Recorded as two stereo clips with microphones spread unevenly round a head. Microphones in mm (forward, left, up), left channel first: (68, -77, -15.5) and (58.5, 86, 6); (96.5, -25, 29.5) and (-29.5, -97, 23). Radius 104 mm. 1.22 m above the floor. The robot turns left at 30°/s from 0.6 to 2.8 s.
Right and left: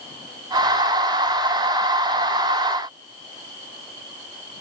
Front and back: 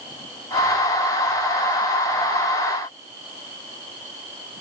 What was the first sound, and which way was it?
Only background noise.